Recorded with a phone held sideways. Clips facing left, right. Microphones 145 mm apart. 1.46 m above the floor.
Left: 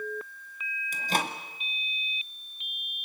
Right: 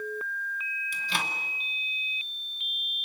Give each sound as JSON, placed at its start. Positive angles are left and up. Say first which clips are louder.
{"t": 0.9, "sound": "a microwave", "louder": "left 5 dB", "side_deg": 45, "distance_m": 2.0}